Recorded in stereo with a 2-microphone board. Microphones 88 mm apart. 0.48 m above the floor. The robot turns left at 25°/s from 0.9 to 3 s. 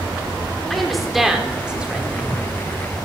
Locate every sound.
0.7 s a woman speaking: centre (ahead or behind), 1.3 m; by 2.8 s 25° right (ahead or behind), 1.3 m